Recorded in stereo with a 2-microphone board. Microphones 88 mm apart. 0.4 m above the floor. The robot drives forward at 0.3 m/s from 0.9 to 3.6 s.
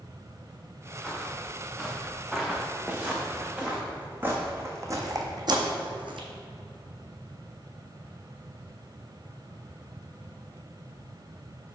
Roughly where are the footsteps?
Centre.